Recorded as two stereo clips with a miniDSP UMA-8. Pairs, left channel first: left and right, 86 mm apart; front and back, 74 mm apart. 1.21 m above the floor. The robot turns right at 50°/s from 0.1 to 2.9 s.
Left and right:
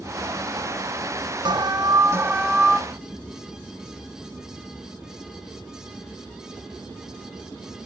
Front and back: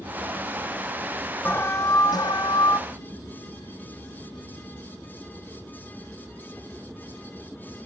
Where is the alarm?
65° right, 0.7 m; by 2.8 s 5° left, 0.7 m.